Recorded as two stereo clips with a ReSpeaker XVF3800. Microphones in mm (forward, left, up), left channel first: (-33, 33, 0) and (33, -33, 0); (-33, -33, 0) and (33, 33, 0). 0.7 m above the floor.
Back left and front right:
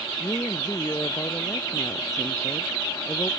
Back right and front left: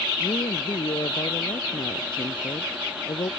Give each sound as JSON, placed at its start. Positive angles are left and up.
{"t": 0.2, "sound": "a woman speaking", "azimuth_deg": -170}